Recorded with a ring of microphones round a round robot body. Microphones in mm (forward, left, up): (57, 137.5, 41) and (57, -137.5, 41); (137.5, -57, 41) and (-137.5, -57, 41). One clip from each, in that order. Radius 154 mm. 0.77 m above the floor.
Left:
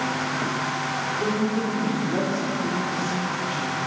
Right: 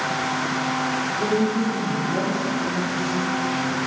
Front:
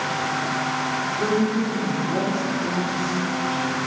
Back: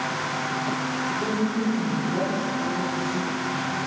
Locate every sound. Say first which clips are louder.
1.2 s a woman speaking: right 3 dB, front 4 dB; 15° left, 2.5 m; by 3.8 s 50° left, 1.7 m